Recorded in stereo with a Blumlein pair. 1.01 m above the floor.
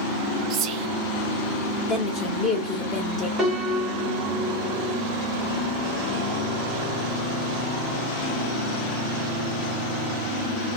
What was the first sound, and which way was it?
Whispering, 30° right.